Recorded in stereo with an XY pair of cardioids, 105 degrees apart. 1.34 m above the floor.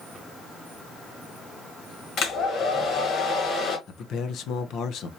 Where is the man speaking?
70° left, 0.7 m.